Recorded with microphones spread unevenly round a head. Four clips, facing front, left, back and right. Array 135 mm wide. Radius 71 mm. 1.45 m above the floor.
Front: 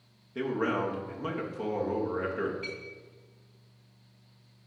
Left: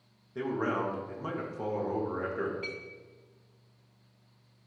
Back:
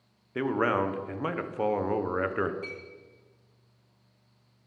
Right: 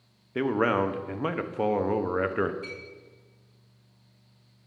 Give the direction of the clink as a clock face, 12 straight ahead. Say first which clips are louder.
Even, even; 7 o'clock.